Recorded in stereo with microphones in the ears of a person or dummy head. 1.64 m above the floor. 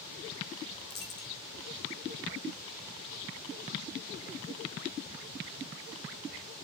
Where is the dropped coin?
20° left (ahead or behind), 1.1 m.